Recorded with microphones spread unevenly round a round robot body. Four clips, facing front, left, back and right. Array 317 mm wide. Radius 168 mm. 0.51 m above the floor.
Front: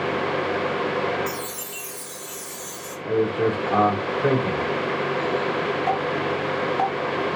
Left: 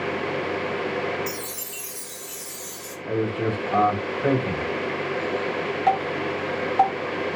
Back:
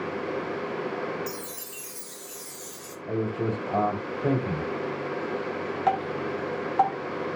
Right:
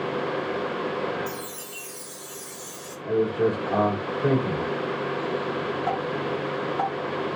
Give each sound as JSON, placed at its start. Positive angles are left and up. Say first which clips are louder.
{"t": 1.3, "sound": "a chime", "louder": "left 1 dB, front 6 dB", "azimuth_deg": 110, "distance_m": 1.1}
{"t": 3.0, "sound": "a man speaking", "louder": "right 2 dB, front 7 dB", "azimuth_deg": 0, "distance_m": 2.0}
{"t": 5.9, "sound": "dripping", "louder": "left 4 dB, front 3 dB", "azimuth_deg": 145, "distance_m": 0.6}